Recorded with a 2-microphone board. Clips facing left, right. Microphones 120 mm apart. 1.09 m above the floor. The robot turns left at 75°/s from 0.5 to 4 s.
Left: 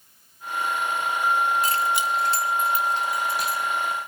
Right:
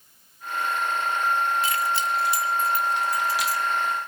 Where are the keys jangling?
40° left (ahead or behind), 2 m; by 3.6 s 70° right (ahead or behind), 2 m.